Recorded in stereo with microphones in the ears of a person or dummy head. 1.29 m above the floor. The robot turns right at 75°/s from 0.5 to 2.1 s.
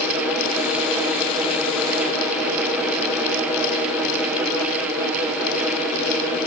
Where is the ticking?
I don't hear ticking.